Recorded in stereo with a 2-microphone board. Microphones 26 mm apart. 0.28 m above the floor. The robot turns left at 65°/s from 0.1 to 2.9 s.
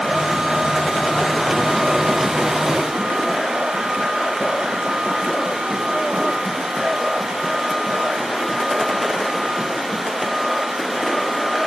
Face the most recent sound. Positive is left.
No sound to turn to.